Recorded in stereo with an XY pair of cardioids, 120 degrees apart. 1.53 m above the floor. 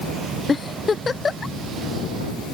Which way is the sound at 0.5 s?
30° left.